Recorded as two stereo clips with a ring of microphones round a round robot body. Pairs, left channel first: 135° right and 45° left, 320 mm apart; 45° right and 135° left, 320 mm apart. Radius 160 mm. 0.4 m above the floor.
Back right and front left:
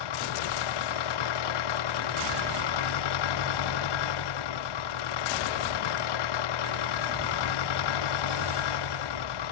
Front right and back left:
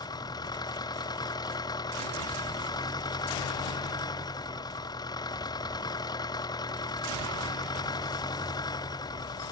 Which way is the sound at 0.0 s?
125° right.